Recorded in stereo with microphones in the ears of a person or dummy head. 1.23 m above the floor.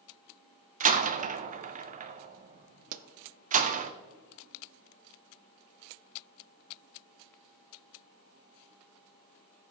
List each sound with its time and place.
0.8 s a door slam: 35° right (ahead or behind), 0.5 m
2.9 s a pop: 45° right (ahead or behind), 0.6 m